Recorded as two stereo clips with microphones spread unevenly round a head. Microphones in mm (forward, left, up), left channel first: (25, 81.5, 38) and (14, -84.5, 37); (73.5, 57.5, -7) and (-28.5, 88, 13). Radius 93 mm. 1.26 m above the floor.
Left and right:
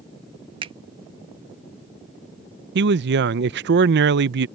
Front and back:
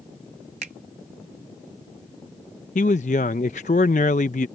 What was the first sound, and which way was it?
A finger snap, 160° right.